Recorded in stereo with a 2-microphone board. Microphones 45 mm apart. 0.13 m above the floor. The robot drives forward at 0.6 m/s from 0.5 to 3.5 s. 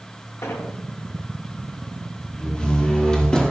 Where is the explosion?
85° left, 2 m.